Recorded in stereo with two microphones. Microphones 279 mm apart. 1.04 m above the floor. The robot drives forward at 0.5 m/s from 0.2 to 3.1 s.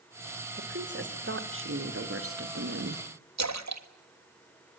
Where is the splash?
75° right (ahead or behind), 1.5 m.